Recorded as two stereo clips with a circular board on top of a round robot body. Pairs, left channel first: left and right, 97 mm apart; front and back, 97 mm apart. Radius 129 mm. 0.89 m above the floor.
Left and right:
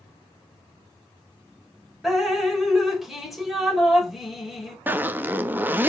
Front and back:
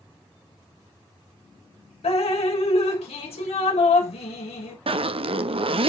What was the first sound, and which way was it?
Dripping, straight ahead.